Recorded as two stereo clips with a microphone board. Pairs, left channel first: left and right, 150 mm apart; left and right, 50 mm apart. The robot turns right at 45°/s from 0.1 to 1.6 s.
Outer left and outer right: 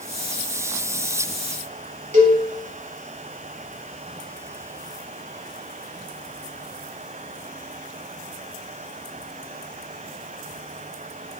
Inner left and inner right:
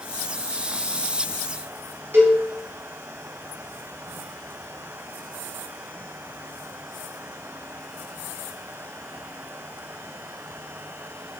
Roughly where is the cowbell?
Right.